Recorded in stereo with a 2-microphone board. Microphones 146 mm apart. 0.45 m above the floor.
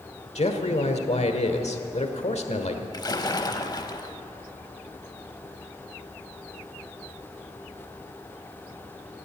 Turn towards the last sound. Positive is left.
turn(degrees=30)  # may be behind; listen again after turning